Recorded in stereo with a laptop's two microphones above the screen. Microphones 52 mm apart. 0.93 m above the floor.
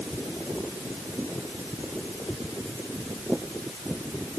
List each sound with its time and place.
Only background noise.